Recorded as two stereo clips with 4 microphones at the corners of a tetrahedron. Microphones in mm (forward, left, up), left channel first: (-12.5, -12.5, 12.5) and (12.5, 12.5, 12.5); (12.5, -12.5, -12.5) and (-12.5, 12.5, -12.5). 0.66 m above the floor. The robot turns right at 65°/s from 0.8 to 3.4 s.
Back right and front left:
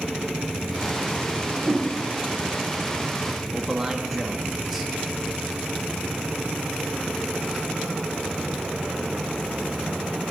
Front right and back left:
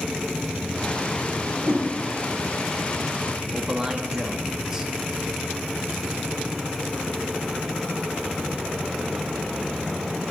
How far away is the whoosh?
About 2.0 m.